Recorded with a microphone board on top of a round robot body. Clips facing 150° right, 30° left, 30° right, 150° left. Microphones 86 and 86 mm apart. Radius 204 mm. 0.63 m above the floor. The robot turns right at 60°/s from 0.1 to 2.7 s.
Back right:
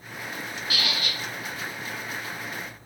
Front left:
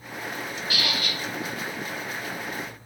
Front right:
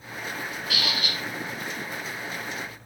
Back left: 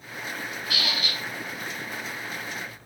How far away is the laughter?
No laughter in this recording.